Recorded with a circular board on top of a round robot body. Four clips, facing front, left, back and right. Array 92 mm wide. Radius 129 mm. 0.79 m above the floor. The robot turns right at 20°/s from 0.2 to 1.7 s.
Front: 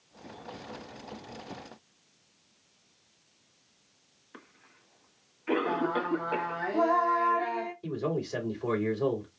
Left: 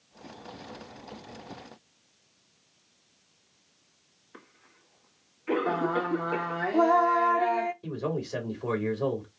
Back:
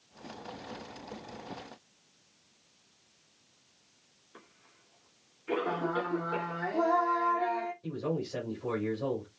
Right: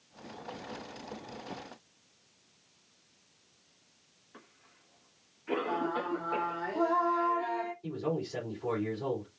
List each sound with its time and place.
4.3 s a cough: 20° left, 1.9 m
5.7 s singing: 75° left, 0.9 m
7.8 s a man speaking: 45° left, 2.5 m